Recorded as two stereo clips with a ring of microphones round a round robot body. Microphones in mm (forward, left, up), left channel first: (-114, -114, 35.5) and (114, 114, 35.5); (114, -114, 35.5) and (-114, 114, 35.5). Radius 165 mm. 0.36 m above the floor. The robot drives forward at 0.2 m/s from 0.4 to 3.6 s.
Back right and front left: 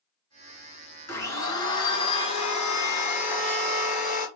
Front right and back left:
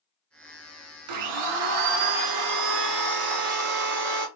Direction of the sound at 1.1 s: 145° left.